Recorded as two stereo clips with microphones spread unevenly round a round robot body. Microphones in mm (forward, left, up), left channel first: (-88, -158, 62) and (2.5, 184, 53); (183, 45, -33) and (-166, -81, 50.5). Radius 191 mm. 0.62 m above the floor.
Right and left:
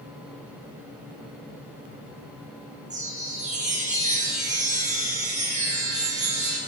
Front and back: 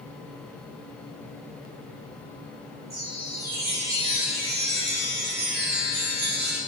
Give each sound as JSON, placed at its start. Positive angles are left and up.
{"t": 2.9, "sound": "a chime", "azimuth_deg": 130, "distance_m": 0.8}